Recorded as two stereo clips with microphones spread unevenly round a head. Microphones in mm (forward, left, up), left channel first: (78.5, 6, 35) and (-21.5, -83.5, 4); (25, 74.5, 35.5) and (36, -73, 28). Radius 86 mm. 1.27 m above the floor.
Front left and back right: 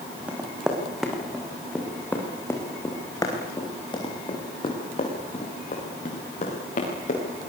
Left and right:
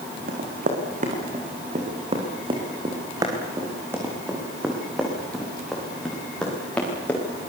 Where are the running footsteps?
55° right, 6.5 m; by 7.2 s 15° left, 9.5 m.